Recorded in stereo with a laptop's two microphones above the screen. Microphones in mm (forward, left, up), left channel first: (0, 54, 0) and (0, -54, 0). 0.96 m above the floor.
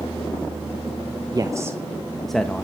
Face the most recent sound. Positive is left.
turn(degrees=10)  # may be behind; listen again after turning